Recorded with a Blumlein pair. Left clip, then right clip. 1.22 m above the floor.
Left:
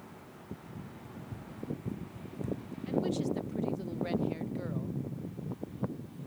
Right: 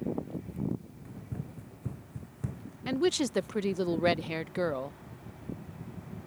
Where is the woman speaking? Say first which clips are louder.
Right 4 dB; 55° right.